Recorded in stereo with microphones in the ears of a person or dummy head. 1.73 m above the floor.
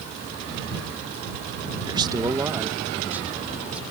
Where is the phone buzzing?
I don't hear a phone buzzing.